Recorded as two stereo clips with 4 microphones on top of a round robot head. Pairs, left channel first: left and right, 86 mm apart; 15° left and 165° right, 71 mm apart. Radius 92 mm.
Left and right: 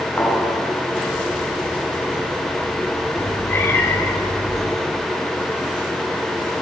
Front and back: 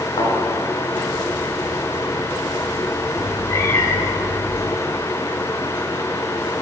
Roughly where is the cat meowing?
Ahead left.